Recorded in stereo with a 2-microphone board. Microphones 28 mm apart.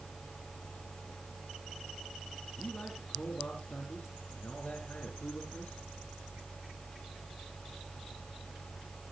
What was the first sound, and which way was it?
A man speaking, 70° left (ahead or behind).